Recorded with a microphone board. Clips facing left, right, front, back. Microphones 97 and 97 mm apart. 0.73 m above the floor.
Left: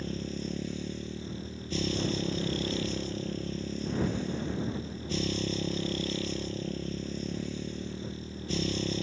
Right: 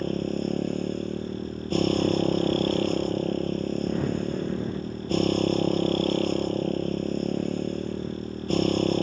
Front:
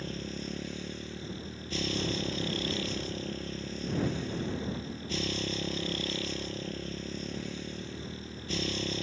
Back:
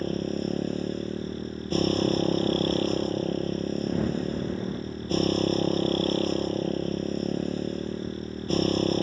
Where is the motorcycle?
130° right.